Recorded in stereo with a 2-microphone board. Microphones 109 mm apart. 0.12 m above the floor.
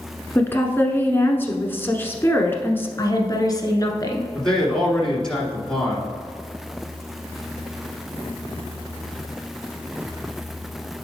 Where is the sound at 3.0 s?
35° left (ahead or behind), 1.2 m.